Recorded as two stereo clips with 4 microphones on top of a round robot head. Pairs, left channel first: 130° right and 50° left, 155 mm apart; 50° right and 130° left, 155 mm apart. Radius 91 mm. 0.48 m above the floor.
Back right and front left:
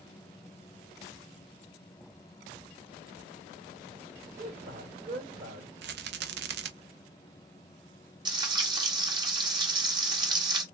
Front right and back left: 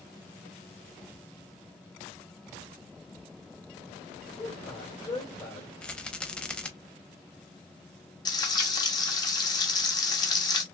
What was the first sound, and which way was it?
A man speaking, 20° left.